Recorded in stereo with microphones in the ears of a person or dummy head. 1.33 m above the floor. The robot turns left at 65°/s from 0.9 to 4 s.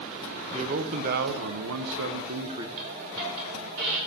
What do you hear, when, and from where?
0.5 s a man speaking: 40° right, 0.7 m; by 2.7 s 155° right, 0.7 m
2.8 s a hiss: 40° right (ahead or behind), 3.5 m; by 4.0 s 60° right (ahead or behind), 3.5 m